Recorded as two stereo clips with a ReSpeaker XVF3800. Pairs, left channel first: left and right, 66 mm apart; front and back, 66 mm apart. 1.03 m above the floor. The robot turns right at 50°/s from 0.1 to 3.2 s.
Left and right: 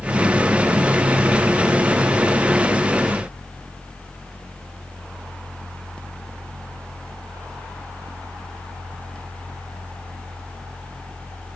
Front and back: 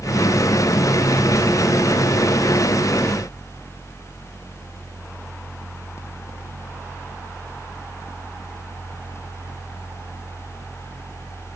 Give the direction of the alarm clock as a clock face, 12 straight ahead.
No alarm clock in this recording.